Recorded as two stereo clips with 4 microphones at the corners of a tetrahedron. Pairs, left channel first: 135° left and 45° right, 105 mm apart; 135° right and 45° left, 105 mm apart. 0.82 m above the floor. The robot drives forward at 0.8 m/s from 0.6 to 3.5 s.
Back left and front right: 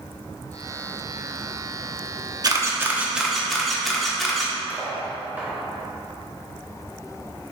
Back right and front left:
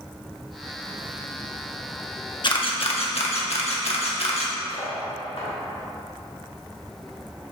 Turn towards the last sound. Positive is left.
turn(degrees=-115)